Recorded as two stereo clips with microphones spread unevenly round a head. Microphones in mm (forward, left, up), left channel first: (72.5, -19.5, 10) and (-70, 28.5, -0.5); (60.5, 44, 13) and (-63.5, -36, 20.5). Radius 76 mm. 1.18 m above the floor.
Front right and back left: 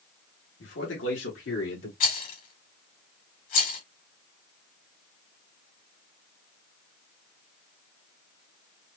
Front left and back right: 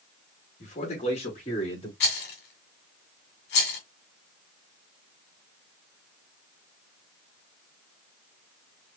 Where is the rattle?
15° left, 1.8 m.